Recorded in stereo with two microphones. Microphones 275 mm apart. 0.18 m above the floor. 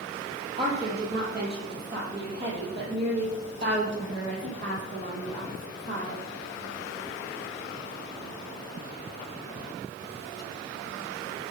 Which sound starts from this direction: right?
A woman speaking, at 0.6 s.